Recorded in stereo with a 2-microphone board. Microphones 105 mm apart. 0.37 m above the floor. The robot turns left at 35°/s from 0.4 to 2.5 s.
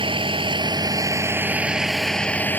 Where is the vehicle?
125° right; by 2.6 s 160° left.